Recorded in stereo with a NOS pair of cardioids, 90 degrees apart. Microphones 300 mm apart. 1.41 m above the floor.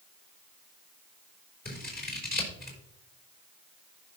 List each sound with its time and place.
1.6 s scissors: 30° left, 4 m